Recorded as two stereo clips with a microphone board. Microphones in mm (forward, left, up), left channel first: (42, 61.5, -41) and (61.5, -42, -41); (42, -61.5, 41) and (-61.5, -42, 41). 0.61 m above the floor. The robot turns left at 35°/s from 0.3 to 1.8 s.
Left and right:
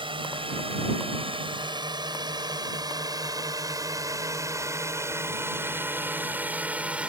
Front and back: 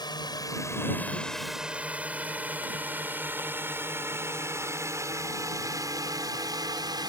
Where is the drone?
55° right; by 7.1 s 155° right.